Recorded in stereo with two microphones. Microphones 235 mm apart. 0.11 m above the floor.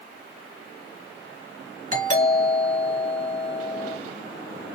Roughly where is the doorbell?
Right.